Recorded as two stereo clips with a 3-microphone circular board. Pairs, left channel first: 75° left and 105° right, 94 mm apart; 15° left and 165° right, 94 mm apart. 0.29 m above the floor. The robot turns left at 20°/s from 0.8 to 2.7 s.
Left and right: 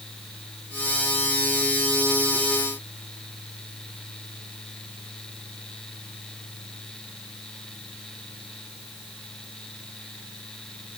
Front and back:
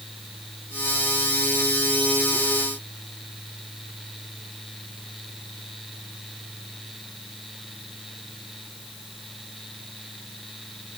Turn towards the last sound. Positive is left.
No sound to turn to.